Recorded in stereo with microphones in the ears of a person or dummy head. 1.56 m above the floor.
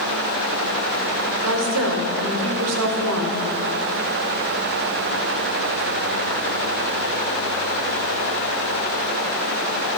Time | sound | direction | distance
1.4 | a woman speaking | 80° right | 0.8 m